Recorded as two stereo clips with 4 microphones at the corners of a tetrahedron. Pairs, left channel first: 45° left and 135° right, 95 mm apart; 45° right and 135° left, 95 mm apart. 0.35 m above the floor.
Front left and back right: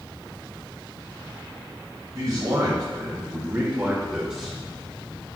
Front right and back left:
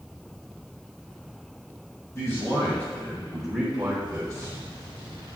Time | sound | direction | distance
2.1 | a man speaking | 95° right | 1.9 m